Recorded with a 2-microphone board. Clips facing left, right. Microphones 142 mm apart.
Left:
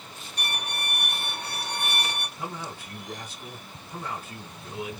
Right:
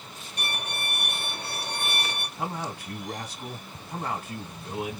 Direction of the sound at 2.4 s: 70° right (ahead or behind).